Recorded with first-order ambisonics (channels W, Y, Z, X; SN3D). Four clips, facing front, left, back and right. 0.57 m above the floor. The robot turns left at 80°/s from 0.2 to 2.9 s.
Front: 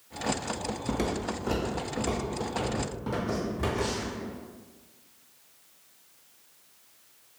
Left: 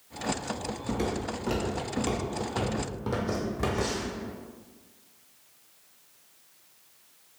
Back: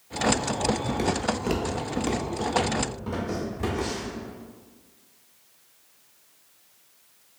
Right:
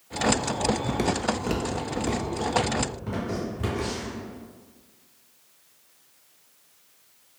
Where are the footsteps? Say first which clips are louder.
Right 5 dB, back 4 dB; 75° right, 0.5 m; by 4.2 s 80° left, 1.9 m.